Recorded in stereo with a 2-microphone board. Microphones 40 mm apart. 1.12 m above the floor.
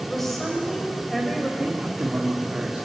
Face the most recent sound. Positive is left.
turn(degrees=-25)  # may be behind; listen again after turning